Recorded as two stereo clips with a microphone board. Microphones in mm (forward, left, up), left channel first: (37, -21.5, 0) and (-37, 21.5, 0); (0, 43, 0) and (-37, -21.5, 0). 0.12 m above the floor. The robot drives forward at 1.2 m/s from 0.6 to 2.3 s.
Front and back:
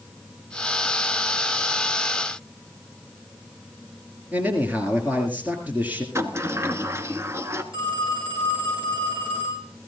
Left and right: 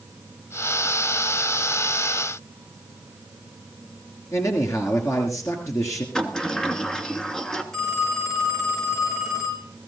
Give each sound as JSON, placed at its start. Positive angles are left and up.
{"t": 4.3, "sound": "a man speaking", "azimuth_deg": 85, "distance_m": 2.5}
{"t": 6.2, "sound": "a sliding door", "azimuth_deg": 135, "distance_m": 1.2}
{"t": 7.7, "sound": "a phone ringing", "azimuth_deg": 145, "distance_m": 5.0}